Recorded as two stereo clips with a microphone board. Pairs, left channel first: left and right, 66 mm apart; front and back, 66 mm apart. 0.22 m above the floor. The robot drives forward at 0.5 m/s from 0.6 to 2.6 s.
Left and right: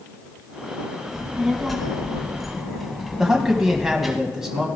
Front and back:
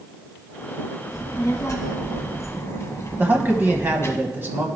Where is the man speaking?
165° right, 1.1 m.